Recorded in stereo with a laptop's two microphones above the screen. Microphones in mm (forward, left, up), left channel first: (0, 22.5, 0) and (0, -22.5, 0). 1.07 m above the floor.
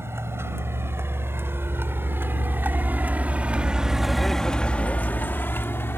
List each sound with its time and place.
0.0 s a vehicle: 65° right (ahead or behind); by 6.0 s 65° left (ahead or behind)